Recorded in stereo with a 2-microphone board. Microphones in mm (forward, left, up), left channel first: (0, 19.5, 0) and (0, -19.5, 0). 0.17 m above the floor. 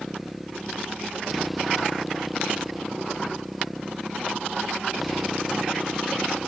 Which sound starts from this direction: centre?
A motorcycle, at 0.0 s.